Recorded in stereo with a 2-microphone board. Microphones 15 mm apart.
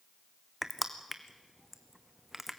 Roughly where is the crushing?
Centre.